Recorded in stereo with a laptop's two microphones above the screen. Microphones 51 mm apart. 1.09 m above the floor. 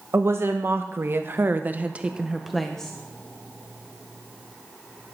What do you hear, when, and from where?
0.1 s a woman speaking: 60° right (ahead or behind), 1.7 m; by 2.9 s 15° left (ahead or behind), 0.9 m